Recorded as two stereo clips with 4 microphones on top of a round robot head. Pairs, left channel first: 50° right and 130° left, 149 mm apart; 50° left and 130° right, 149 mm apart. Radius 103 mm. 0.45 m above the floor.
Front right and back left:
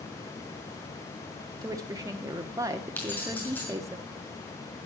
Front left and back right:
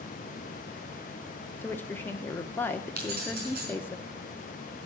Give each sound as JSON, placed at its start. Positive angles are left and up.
{"t": 1.6, "sound": "a woman speaking", "azimuth_deg": 105, "distance_m": 1.2}
{"t": 3.0, "sound": "keys jangling", "azimuth_deg": -130, "distance_m": 4.5}